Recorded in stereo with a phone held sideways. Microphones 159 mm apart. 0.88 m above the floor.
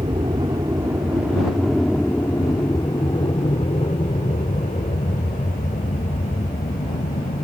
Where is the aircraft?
30° right (ahead or behind); by 7.4 s 65° left (ahead or behind).